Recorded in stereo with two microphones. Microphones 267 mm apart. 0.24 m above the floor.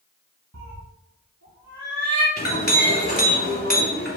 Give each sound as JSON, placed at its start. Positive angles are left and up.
{"t": 0.5, "sound": "a cat meowing", "side_deg": -85, "distance_m": 2.5}
{"t": 2.4, "sound": "a clink", "side_deg": 35, "distance_m": 1.5}